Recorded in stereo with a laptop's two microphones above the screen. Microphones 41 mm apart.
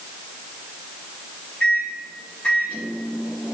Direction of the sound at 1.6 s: 30° left (ahead or behind).